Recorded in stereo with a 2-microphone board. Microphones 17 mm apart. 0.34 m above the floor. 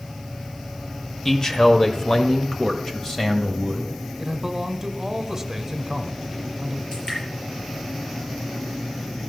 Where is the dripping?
35° left (ahead or behind), 7 m.